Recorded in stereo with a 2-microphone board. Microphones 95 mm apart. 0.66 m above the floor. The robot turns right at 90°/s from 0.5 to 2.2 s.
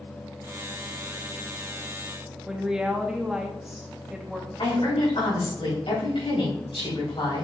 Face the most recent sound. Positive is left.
turn(degrees=70)  # may be behind; listen again after turning